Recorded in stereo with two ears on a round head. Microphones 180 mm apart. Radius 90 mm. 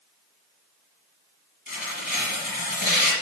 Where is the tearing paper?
45° left (ahead or behind), 3 m.